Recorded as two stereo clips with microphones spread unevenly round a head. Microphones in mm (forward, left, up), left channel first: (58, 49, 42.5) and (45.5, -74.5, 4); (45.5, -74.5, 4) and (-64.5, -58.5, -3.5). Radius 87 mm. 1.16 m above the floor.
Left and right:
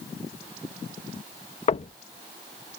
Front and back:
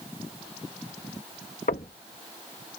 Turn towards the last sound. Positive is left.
turn(degrees=45)